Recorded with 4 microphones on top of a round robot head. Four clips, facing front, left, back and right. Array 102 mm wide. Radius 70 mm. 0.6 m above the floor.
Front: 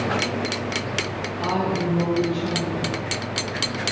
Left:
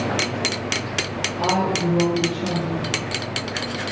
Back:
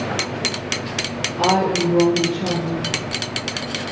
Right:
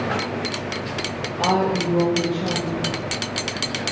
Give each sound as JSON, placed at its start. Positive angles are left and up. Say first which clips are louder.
{"t": 1.4, "sound": "a woman speaking", "louder": "right 1 dB, back 6 dB", "azimuth_deg": -175, "distance_m": 10.0}